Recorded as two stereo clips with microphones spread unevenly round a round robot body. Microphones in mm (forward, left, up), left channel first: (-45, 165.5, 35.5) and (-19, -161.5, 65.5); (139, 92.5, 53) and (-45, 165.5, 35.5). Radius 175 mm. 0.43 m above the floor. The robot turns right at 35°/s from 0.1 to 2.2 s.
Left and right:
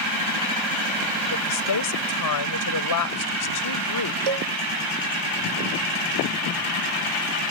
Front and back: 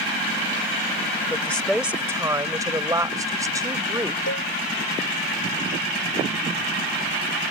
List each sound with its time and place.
1.3 s a woman speaking: 55° left; by 4.2 s 90° left
4.3 s a cowbell: 75° right